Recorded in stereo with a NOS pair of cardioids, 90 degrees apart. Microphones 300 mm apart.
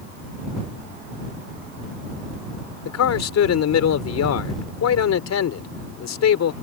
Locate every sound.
2.9 s a man speaking: 60° left